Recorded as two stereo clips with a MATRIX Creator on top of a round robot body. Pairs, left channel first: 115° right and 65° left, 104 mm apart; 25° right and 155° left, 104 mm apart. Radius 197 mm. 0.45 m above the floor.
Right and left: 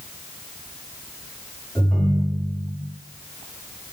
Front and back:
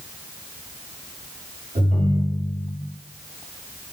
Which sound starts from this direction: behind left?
A ringtone, at 1.8 s.